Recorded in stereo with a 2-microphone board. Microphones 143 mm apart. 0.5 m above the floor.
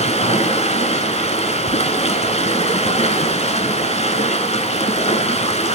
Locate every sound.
0.0 s running water: 45° left (ahead or behind), 1.1 m